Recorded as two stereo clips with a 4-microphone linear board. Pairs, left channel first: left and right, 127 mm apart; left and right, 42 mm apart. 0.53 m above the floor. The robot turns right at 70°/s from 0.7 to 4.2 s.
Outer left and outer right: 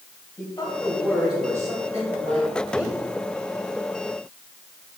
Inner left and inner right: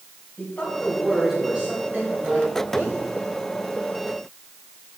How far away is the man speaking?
About 3.5 m.